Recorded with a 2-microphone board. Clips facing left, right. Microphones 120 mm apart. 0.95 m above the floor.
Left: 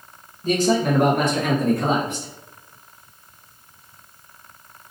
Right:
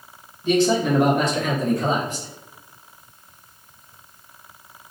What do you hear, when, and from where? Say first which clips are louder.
0.4 s a man speaking: right 1 dB; 40° left (ahead or behind), 1.0 m; by 2.3 s 60° left (ahead or behind), 1.9 m